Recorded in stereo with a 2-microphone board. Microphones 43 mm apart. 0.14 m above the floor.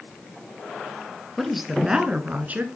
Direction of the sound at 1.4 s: 5° left (ahead or behind).